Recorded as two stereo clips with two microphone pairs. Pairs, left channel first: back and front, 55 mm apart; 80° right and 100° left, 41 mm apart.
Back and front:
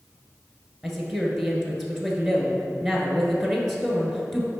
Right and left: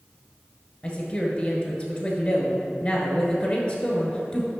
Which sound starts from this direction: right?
A woman speaking, at 0.8 s.